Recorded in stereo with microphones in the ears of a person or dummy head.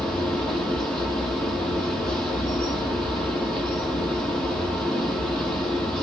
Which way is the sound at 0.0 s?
5° left (ahead or behind).